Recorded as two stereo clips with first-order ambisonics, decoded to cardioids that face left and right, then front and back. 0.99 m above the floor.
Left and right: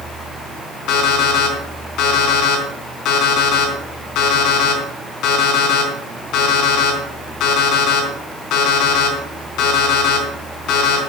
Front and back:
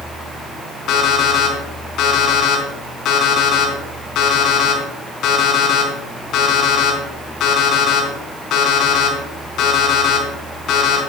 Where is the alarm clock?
50° left, 4 m.